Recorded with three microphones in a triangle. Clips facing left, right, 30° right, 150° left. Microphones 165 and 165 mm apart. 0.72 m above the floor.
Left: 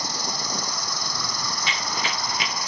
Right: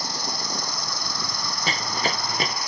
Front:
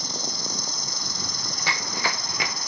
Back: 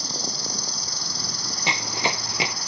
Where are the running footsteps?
140° right.